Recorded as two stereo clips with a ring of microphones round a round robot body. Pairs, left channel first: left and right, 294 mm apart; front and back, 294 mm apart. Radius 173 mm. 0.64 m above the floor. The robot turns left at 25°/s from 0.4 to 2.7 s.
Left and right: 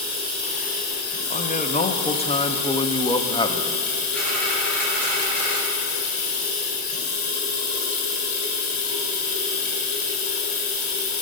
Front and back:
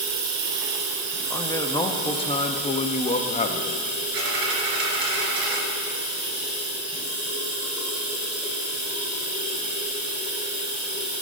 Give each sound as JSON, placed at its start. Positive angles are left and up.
{"t": 0.0, "sound": "running water", "azimuth_deg": 165, "distance_m": 2.5}
{"t": 1.3, "sound": "a man speaking", "azimuth_deg": 70, "distance_m": 0.8}
{"t": 4.1, "sound": "a dropped coin", "azimuth_deg": 175, "distance_m": 2.5}